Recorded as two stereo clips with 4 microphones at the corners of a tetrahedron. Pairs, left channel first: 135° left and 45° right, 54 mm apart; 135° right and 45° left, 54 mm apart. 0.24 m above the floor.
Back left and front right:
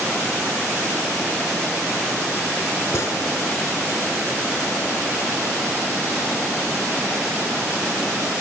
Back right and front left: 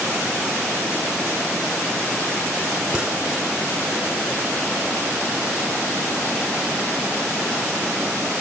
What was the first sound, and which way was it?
A gunshot, 120° left.